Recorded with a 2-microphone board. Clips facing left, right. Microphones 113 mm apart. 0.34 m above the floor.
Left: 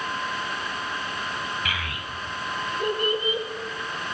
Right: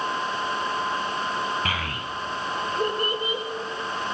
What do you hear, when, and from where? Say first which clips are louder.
1.6 s a child speaking: right 3 dB; 45° right (ahead or behind), 1.0 m